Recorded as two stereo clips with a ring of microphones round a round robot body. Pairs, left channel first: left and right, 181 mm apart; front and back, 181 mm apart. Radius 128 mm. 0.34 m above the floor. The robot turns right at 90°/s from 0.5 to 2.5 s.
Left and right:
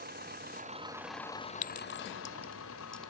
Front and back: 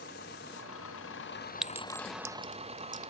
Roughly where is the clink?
Left.